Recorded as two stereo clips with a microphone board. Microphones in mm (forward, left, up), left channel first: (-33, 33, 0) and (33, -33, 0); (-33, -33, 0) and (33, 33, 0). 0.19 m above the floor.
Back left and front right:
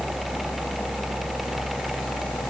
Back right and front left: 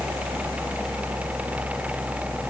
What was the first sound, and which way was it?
Only background noise.